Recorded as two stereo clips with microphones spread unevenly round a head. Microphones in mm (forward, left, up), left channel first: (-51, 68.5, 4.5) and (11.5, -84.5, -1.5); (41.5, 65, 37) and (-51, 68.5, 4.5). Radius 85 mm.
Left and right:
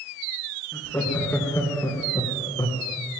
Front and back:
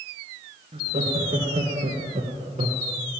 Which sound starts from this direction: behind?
Laughter, at 0.7 s.